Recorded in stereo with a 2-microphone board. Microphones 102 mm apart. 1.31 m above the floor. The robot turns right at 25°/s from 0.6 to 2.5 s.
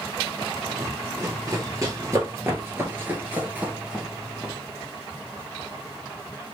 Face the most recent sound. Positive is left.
turn(degrees=-10)  # may be behind; listen again after turning